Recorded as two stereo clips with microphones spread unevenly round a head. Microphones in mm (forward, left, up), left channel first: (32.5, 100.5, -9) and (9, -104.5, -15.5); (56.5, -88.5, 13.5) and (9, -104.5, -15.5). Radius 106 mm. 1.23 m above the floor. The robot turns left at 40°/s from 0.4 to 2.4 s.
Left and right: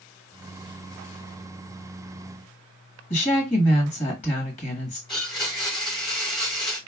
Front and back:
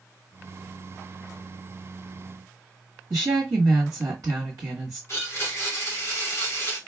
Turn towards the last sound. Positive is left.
turn(degrees=15)